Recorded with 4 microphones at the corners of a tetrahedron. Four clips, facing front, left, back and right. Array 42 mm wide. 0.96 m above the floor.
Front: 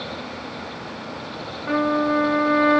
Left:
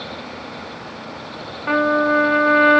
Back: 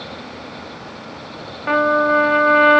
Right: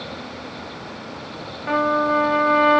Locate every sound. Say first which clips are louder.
1.7 s a trumpet: left 2 dB, back 5 dB; 175° left, 1.1 m